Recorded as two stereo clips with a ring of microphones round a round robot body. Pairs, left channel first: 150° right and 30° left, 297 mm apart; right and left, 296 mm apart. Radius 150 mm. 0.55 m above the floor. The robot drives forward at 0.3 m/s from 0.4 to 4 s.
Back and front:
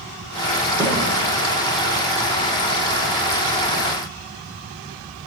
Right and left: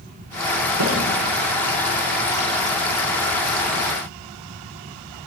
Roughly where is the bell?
No bell in this recording.